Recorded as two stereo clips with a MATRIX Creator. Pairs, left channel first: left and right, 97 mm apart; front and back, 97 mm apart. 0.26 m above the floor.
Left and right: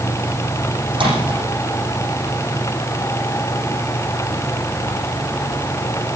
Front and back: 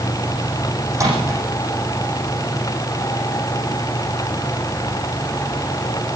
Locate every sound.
0.9 s a microwave: 120° right, 9.5 m